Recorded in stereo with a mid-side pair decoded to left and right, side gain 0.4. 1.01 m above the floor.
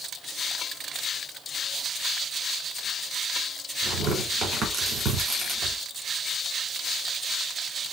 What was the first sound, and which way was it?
Tearing paper, 65° right.